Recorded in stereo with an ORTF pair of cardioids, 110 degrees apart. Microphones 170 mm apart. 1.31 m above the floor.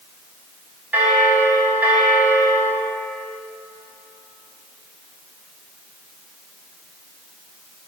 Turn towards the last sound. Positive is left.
turn(degrees=-10)